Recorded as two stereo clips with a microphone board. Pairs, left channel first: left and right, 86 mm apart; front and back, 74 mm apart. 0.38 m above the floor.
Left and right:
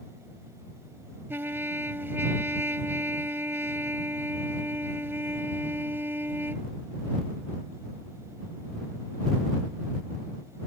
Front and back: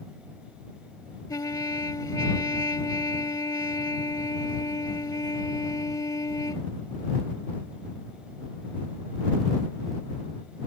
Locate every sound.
1.3 s a trumpet: 30° right